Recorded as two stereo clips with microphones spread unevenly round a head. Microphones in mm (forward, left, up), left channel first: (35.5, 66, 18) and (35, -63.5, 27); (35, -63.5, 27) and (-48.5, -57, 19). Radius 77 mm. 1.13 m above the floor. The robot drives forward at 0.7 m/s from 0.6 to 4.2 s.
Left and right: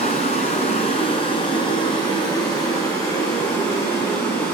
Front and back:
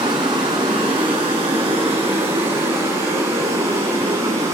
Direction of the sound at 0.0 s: 135° left.